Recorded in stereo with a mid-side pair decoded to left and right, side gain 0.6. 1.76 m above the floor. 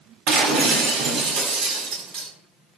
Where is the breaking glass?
65° right, 5.5 m.